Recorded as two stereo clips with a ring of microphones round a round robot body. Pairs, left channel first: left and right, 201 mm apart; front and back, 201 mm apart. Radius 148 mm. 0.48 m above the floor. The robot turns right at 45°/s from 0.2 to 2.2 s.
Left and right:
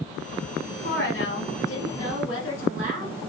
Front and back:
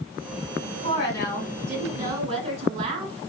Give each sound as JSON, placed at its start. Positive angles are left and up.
{"t": 0.8, "sound": "a woman speaking", "azimuth_deg": 60, "distance_m": 2.5}